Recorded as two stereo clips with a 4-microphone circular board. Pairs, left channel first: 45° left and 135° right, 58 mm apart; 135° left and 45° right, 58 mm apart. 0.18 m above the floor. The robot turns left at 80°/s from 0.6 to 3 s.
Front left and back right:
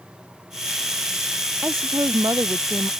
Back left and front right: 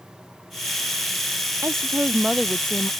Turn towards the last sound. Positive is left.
turn(degrees=175)